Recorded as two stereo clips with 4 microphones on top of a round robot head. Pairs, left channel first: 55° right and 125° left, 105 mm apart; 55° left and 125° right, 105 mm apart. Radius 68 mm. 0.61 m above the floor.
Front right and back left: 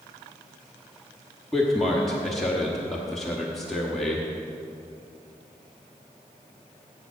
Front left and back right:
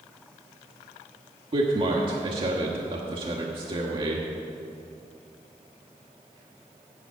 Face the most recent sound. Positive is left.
turn(degrees=-140)